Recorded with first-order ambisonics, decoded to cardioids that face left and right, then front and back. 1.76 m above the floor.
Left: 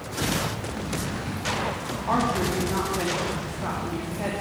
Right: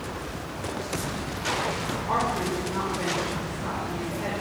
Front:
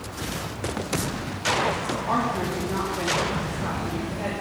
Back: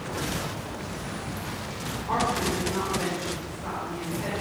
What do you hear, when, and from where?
2.1 s a woman speaking: 55° left, 3.5 m